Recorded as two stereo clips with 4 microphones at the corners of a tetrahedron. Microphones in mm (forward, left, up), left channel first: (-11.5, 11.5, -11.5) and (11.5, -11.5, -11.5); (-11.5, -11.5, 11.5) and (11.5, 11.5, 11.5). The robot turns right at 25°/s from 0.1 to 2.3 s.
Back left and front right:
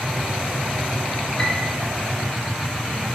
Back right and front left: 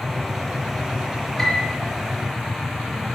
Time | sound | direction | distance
1.4 | a piano | 135° left | 1.5 m